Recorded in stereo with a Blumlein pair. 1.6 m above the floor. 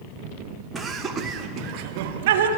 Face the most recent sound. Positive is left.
turn(degrees=-60)